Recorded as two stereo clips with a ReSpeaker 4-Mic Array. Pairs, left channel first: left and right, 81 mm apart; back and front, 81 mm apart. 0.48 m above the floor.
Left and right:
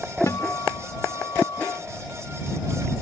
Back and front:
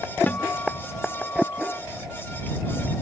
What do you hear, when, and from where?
0.3 s a guitar: 120° left